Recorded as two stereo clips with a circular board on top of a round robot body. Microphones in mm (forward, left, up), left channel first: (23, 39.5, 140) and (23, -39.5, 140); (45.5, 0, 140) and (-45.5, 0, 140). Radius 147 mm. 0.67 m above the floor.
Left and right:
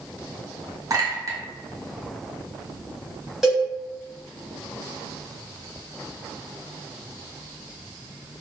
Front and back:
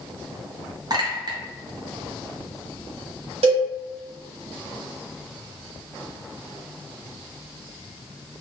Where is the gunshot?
I don't hear a gunshot.